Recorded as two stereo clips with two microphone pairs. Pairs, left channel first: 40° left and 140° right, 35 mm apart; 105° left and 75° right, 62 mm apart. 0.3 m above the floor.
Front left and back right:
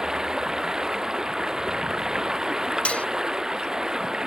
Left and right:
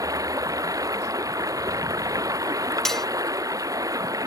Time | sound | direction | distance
0.0 | running water | 70° right | ?
2.9 | cutlery clinking | 20° left | ?